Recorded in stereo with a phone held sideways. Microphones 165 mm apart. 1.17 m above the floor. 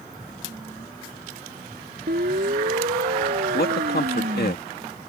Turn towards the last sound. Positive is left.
turn(degrees=75)  # may be behind; listen again after turning